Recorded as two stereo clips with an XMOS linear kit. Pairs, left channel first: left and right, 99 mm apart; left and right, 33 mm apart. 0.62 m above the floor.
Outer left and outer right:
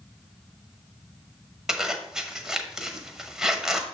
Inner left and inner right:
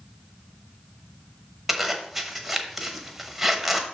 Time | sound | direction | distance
1.7 | a zipper | 5° right (ahead or behind) | 1.0 m